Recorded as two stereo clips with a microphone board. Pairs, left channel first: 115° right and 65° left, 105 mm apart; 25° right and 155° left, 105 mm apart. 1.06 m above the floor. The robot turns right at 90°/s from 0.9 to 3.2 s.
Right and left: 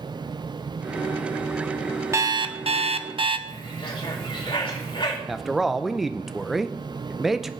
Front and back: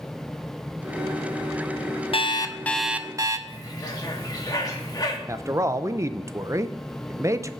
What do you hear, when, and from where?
2.1 s an alarm clock: 5° left, 0.8 m; by 3.4 s 100° left, 0.8 m
3.5 s a bird: 75° right, 2.5 m
5.3 s a man speaking: 155° left, 0.6 m